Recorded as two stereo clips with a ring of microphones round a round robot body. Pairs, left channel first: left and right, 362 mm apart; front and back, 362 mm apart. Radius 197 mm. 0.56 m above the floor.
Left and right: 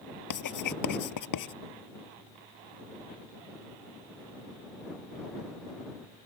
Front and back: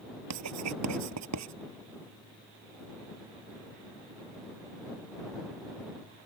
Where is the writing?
125° left.